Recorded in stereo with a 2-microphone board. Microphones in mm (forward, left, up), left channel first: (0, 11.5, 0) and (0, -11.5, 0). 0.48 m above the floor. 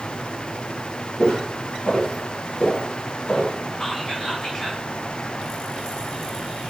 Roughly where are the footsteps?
Left.